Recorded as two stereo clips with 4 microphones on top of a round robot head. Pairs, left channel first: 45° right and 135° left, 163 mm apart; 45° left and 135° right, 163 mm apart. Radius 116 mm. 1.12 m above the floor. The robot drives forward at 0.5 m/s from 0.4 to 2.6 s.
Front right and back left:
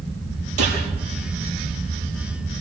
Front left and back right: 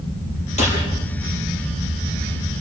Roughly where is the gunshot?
Left.